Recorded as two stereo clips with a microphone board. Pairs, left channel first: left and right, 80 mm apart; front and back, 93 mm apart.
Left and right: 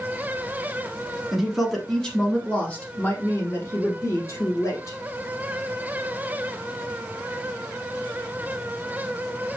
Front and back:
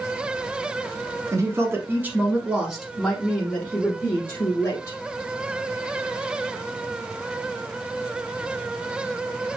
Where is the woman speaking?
170° right, 1.3 m; by 5.0 s 50° left, 1.7 m.